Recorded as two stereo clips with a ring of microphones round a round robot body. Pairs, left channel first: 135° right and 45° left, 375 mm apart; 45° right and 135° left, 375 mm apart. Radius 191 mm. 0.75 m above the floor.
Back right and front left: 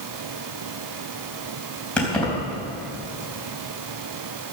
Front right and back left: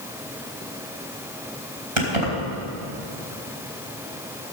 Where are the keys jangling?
135° left, 3.5 m.